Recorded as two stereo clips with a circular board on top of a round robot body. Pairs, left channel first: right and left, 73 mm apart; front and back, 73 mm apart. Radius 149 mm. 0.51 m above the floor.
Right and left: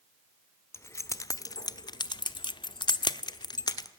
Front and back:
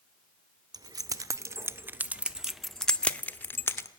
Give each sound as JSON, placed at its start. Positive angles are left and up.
{"t": 0.7, "sound": "keys jangling", "azimuth_deg": -145, "distance_m": 1.3}